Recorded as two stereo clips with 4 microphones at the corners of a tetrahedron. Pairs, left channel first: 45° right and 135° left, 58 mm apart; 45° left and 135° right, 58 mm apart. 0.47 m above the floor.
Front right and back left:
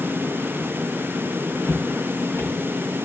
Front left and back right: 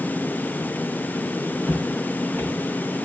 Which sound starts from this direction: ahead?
Footsteps, at 1.6 s.